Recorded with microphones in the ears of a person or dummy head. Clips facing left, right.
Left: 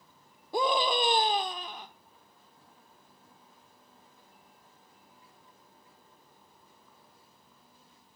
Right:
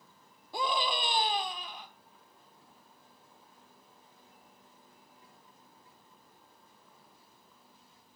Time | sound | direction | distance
0.5 | a scream | 40° left (ahead or behind) | 1.2 m